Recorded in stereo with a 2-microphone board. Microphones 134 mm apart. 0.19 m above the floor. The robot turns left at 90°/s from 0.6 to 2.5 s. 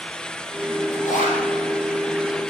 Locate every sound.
0.9 s a zipper: 95° left, 5.5 m; by 1.4 s 55° left, 5.5 m